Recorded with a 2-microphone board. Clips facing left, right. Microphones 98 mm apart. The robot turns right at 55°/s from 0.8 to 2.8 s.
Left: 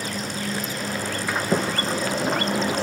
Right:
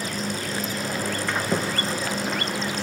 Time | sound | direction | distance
1.3 | a sliding door | 10° left | 0.8 m